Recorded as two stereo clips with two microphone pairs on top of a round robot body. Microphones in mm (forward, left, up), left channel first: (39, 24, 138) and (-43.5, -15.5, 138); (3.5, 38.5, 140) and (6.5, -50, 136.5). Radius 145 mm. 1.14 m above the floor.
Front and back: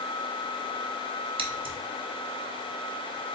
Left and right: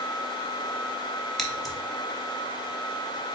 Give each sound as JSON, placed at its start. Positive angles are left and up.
{"t": 1.4, "sound": "scissors", "azimuth_deg": 180, "distance_m": 0.8}